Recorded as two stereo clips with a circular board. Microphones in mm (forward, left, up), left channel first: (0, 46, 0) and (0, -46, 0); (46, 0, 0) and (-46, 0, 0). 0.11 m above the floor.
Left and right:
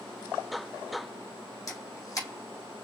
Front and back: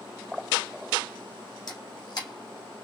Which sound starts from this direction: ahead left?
A camera shutter, at 1.7 s.